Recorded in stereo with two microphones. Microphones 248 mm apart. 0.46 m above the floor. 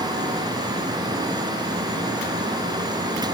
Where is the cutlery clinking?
I don't hear cutlery clinking.